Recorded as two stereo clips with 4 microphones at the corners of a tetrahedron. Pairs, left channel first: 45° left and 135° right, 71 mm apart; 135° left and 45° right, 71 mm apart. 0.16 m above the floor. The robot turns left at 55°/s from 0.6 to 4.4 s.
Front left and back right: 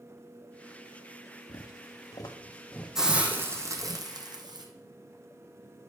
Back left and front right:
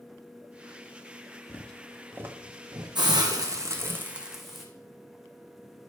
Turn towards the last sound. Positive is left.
turn(degrees=-130)